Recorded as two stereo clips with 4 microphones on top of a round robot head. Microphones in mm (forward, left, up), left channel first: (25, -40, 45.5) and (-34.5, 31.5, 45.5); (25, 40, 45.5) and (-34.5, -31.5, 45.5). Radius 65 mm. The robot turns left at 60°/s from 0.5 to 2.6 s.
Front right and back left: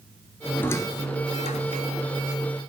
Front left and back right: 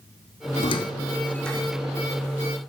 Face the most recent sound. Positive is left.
turn(degrees=-100)